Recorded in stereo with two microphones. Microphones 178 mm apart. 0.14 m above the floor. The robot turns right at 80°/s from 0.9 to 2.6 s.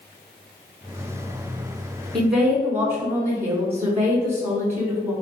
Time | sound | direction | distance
2.1 | a woman speaking | 170° left | 1.1 m